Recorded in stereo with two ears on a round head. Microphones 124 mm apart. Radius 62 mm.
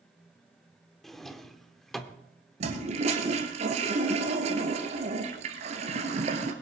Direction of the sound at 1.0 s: Centre (ahead or behind).